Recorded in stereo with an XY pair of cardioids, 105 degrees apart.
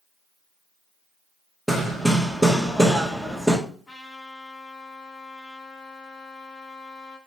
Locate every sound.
1.7 s hammering: 5° left, 1.9 m
3.9 s a trumpet: 35° left, 5.5 m